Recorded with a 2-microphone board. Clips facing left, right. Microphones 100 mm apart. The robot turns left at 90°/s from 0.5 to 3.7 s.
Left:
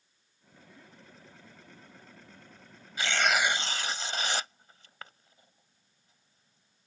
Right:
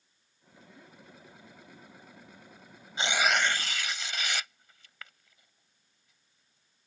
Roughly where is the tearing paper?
Right.